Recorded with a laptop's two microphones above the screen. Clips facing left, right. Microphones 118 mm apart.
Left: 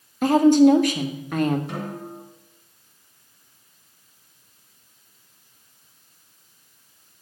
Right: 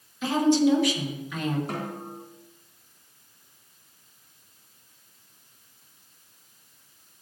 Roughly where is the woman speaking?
Left.